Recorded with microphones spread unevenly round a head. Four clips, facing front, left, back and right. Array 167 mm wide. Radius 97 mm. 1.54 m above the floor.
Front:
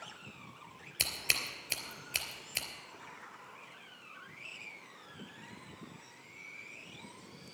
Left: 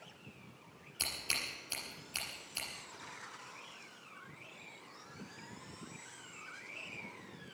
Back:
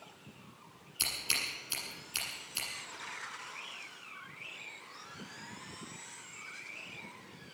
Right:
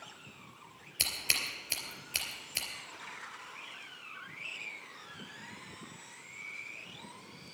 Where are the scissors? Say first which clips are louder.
Right 4 dB, front 1 dB; 30° right, 3 m.